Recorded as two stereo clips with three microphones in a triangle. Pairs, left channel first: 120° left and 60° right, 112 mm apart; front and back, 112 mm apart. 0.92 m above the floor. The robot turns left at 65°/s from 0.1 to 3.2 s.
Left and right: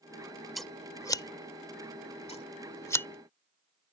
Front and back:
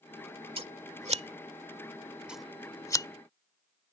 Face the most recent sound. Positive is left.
turn(degrees=40)